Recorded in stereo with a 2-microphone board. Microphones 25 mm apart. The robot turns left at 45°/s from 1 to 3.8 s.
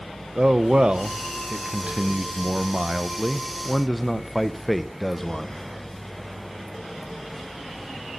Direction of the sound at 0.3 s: 55° right.